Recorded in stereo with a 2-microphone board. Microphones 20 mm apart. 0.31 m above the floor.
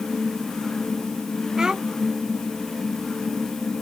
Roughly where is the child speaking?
Right.